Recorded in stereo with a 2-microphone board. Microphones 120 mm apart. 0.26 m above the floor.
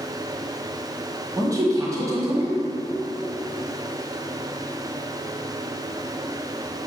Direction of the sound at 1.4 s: 30° right (ahead or behind).